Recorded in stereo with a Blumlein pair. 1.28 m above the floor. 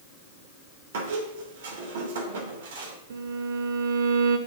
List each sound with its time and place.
0.9 s a squeak: 60° right, 3 m
3.1 s a violin: 65° right, 1.6 m